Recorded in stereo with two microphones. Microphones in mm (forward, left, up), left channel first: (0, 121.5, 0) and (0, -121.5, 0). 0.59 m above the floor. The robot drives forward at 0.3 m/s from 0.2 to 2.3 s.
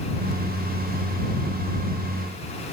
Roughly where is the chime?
No chime in this recording.